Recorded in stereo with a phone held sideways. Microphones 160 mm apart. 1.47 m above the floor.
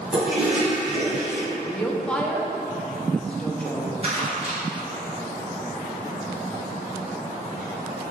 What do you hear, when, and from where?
0.1 s a toilet flushing: 5° right (ahead or behind), 1.4 m
1.6 s a woman speaking: 5° left (ahead or behind), 0.6 m
4.0 s crumpling: 40° right (ahead or behind), 2.0 m